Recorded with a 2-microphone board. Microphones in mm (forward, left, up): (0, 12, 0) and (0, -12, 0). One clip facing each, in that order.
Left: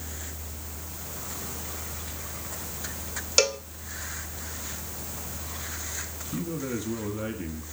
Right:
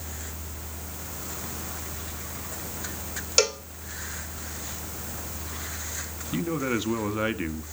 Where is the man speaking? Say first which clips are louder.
Right 5 dB; 40° right (ahead or behind), 1.4 m.